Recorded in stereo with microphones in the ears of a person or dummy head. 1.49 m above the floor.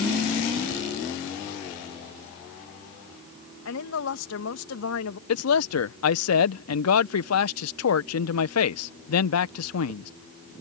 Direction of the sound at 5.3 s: 85° left.